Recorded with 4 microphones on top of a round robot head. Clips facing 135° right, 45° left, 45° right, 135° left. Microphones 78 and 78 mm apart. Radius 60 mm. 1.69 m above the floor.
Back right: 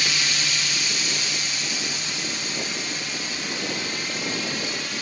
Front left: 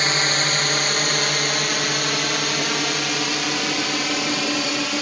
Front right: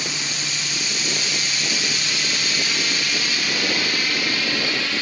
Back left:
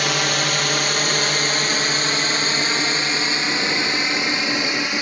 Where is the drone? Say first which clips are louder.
Front left 6 dB, back left 9 dB; 100° left; by 5.0 s 60° left.